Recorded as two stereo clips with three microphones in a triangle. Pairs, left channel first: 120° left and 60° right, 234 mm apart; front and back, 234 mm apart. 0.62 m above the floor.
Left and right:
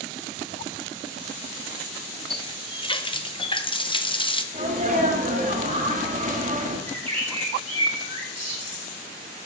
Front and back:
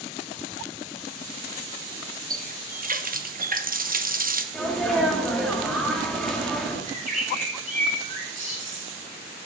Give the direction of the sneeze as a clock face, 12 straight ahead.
3 o'clock.